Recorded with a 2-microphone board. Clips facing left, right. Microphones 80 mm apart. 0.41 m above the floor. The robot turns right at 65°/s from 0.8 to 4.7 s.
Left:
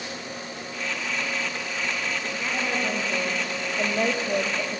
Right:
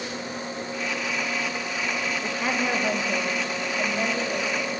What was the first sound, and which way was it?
A woman speaking, 65° right.